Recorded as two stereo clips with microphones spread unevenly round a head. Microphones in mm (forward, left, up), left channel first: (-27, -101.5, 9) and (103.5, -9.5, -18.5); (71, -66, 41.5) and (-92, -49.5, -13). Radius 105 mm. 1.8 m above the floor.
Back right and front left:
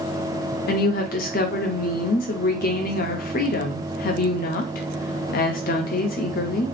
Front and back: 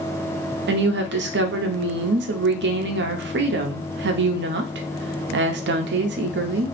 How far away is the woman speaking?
About 0.7 m.